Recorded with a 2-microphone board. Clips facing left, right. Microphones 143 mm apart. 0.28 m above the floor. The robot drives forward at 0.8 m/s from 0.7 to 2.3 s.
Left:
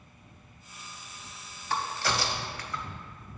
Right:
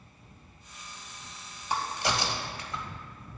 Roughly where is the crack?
Centre.